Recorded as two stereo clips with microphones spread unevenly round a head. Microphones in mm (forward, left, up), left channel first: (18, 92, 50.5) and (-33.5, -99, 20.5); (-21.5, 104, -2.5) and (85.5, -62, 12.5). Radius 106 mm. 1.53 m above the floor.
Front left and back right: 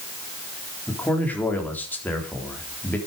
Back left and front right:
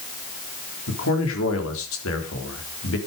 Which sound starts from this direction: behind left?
A man speaking, at 0.9 s.